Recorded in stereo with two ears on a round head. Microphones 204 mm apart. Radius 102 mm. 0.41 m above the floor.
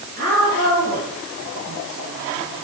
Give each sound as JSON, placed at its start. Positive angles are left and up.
{"t": 0.2, "sound": "a woman speaking", "side_deg": -45, "distance_m": 8.0}